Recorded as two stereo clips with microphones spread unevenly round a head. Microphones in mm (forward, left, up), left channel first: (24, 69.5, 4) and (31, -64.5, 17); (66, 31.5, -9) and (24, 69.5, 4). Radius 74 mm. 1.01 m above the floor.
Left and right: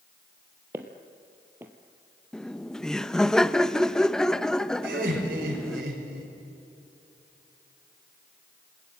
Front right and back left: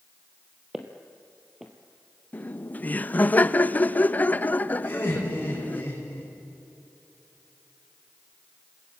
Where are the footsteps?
155° right, 1.5 m.